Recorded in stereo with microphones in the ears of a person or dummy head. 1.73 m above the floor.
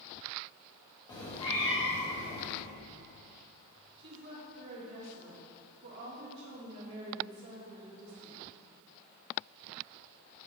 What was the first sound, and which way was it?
A cat meowing, 20° left (ahead or behind).